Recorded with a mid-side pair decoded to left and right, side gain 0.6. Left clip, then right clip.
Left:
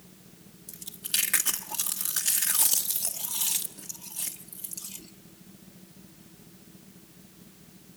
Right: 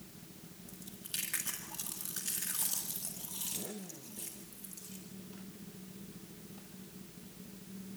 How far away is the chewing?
About 1.8 m.